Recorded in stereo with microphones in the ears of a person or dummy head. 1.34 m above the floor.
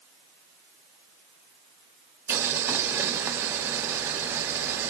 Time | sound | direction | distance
2.3 | boiling | 10° right (ahead or behind) | 1.4 m